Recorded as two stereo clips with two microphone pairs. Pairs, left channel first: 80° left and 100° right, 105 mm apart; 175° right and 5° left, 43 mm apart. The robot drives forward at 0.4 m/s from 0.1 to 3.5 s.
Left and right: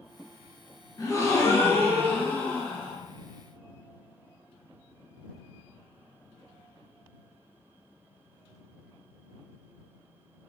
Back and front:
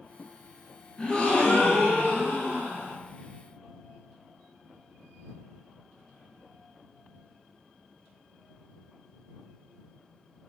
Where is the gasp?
125° left, 0.7 m; by 3.0 s 155° left, 1.3 m.